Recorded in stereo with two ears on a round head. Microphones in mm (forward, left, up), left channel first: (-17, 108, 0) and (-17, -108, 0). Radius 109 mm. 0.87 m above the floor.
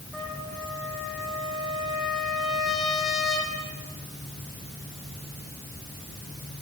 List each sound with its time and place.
0.1 s a trumpet: centre (ahead or behind), 6 m